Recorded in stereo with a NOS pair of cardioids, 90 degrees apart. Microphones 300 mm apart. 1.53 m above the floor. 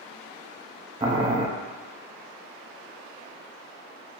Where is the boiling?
20° right, 0.7 m.